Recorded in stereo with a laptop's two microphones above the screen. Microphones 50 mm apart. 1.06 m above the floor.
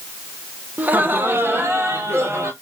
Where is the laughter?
35° right (ahead or behind), 0.9 m; by 2.5 s 65° right (ahead or behind), 2.0 m.